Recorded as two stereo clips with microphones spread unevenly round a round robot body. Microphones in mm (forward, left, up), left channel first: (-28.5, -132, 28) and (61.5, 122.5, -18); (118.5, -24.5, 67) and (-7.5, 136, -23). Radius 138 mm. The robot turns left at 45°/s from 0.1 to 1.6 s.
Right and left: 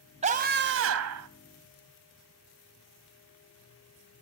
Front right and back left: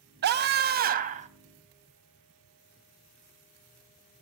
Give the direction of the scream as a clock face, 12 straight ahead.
8 o'clock.